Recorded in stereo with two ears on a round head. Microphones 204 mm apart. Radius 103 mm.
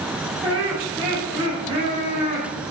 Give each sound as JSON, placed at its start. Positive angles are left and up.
{"t": 0.4, "sound": "laughter", "side_deg": -25, "distance_m": 5.5}